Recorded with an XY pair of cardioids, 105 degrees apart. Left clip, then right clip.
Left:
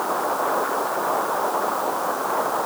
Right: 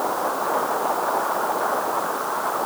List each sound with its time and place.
Only background noise.